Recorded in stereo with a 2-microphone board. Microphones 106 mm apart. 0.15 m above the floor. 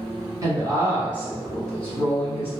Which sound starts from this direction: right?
A woman speaking, at 0.4 s.